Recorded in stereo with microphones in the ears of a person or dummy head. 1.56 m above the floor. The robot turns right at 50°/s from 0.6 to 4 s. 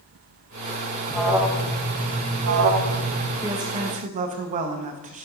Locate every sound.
1.1 s an alarm: 175° left, 0.5 m; by 3.3 s 75° right, 0.5 m
3.4 s a woman speaking: 10° right (ahead or behind), 0.9 m; by 5.2 s 35° right (ahead or behind), 0.9 m